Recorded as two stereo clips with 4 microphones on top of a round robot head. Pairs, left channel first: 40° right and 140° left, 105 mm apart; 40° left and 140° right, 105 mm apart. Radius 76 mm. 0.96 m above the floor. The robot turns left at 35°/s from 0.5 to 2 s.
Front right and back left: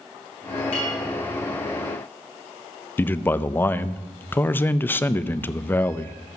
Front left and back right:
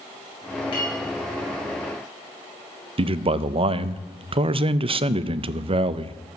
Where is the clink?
5° right, 5 m; by 1.0 s 15° right, 5 m.